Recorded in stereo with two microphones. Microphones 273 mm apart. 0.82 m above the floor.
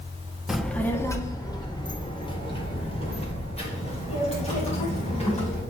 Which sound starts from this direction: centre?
A child speaking, at 0.5 s.